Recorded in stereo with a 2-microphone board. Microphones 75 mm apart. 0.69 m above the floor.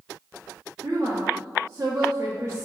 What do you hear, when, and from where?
0.8 s a woman speaking: 35° right (ahead or behind), 0.7 m